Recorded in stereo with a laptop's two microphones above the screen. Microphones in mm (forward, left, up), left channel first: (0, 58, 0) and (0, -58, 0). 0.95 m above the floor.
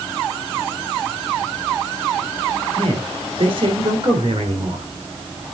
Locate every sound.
2.8 s a man speaking: 55° right (ahead or behind), 3.5 m